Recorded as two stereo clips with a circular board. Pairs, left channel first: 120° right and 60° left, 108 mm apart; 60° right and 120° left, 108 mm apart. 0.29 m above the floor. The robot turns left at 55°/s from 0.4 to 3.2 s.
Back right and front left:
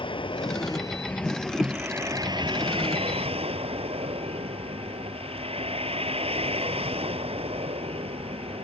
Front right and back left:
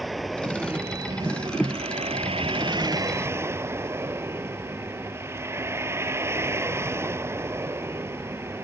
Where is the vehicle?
150° right; by 8.6 s 55° left.